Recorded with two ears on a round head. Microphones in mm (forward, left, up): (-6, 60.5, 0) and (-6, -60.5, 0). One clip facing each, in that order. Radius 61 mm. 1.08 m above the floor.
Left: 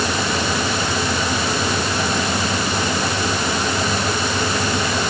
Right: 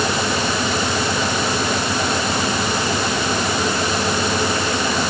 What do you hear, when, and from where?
Only background noise.